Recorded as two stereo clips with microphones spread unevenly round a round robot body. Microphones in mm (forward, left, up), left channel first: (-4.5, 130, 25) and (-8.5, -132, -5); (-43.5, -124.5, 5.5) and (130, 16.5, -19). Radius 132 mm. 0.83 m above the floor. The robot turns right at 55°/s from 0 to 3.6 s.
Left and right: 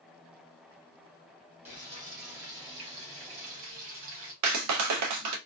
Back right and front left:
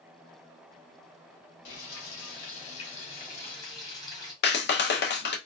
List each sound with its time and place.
1.6 s frying: 175° right, 1.7 m; by 4.3 s 65° right, 1.7 m
4.4 s a clap: 100° right, 0.7 m